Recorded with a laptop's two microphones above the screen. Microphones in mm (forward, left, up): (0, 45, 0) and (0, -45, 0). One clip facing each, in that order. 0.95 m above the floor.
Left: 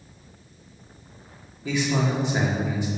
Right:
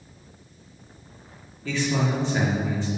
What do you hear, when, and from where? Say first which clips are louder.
1.6 s a man speaking: left 1 dB; 15° left (ahead or behind), 1.8 m